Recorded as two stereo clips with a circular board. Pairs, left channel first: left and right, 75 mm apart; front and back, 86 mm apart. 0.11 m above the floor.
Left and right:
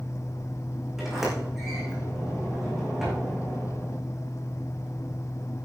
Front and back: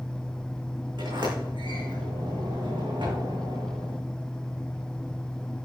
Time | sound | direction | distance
1.0 | a sliding door | 175° right | 6.5 m